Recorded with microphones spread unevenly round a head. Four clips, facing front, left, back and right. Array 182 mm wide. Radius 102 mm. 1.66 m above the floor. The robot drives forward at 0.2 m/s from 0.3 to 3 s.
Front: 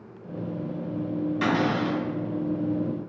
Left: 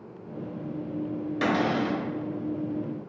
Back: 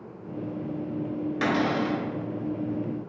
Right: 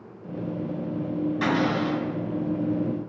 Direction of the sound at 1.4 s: 120° left.